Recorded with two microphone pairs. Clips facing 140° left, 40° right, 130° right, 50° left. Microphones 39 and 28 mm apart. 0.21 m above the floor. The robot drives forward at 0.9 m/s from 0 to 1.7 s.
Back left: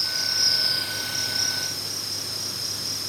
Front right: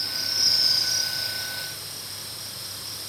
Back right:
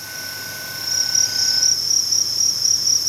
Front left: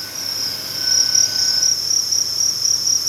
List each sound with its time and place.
0.0 s an insect: 30° left, 1.0 m; by 3.1 s 145° left, 0.9 m